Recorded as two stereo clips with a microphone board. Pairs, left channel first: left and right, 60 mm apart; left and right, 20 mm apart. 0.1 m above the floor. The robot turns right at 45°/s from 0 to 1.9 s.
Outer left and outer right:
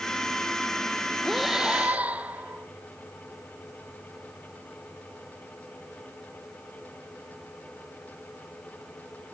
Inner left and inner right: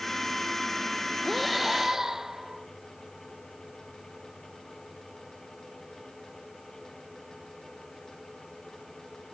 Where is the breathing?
5° left (ahead or behind), 0.6 m; by 2.7 s 25° right (ahead or behind), 0.6 m.